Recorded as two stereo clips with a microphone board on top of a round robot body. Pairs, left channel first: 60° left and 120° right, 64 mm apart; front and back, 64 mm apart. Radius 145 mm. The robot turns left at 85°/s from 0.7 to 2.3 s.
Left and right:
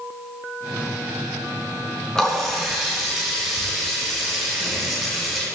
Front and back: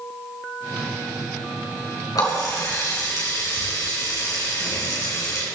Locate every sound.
2.1 s a running tap: 20° right, 3.5 m; by 5.5 s 35° right, 3.5 m